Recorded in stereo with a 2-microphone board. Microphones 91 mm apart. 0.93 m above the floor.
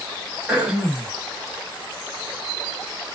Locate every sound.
0.5 s throat clearing: 15° right (ahead or behind), 1.3 m